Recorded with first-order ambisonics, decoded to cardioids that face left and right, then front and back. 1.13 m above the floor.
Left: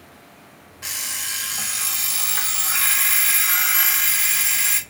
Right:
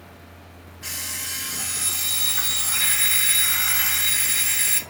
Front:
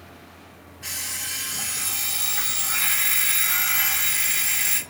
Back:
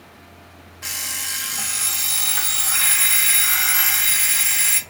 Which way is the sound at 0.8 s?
140° left.